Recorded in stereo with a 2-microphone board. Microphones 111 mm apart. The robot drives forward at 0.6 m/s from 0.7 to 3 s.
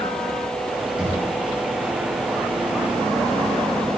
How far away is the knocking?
About 5 m.